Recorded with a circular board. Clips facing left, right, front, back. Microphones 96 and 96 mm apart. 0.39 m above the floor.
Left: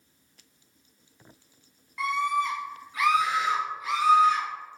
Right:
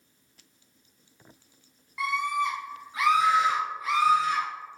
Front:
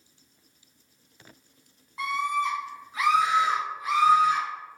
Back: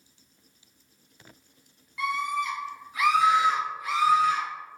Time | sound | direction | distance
2.0 | a scream | 5° right | 1.5 m